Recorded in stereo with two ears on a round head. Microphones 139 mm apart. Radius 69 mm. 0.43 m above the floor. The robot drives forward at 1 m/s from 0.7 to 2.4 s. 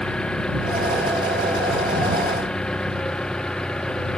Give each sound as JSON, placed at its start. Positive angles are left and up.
{"t": 0.0, "sound": "an engine running", "side_deg": 5}